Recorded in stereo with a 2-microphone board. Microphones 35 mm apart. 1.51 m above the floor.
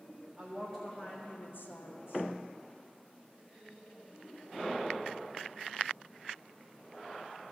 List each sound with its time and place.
0.4 s a woman speaking: centre (ahead or behind), 1.4 m; by 2.3 s 65° left (ahead or behind), 1.3 m